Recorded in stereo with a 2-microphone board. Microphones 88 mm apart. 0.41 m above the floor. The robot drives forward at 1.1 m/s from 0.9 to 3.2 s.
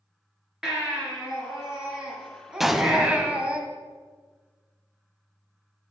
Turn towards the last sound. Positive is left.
turn(degrees=0)  # may be behind; listen again after turning